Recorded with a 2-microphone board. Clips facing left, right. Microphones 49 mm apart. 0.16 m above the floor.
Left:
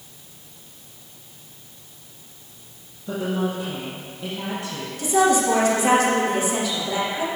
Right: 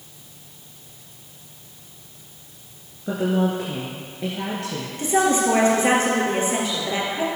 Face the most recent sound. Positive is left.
turn(degrees=-35)  # may be behind; listen again after turning